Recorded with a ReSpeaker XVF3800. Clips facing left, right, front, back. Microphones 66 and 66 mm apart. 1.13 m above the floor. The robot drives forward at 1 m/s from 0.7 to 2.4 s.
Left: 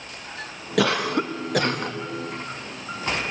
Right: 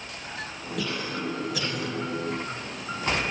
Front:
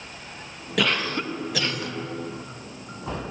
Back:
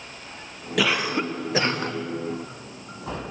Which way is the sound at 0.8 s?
95° left.